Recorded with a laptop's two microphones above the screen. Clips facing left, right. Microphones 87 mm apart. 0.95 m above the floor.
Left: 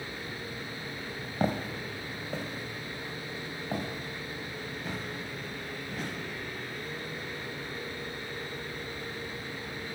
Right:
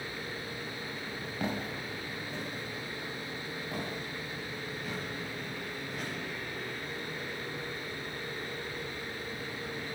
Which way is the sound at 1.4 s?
35° left (ahead or behind).